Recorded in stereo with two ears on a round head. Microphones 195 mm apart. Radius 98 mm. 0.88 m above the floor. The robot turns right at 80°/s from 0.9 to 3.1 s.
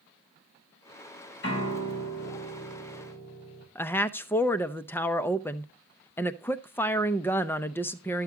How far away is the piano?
About 5 m.